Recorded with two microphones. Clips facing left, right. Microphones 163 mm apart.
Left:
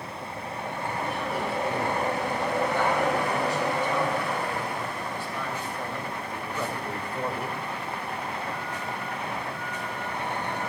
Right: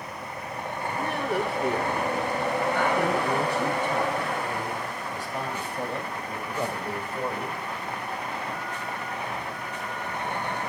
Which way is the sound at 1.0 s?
65° right (ahead or behind).